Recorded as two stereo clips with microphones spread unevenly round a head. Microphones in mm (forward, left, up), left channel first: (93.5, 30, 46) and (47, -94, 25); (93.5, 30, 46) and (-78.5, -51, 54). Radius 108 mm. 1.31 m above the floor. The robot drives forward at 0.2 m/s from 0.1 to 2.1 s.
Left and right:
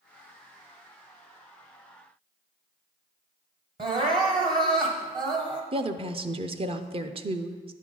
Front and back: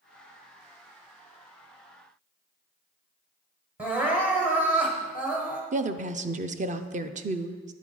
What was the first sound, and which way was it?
Crying, 90° right.